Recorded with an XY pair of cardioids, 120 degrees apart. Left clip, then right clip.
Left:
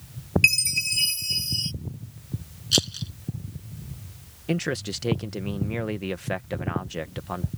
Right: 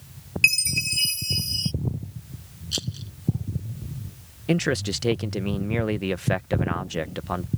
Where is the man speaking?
25° right.